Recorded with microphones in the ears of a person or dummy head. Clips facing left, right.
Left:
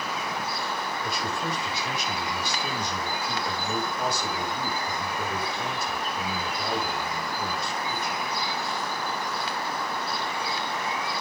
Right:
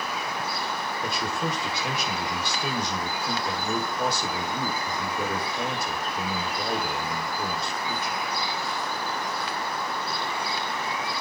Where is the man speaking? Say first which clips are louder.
Right 4 dB; 60° right (ahead or behind), 5 m.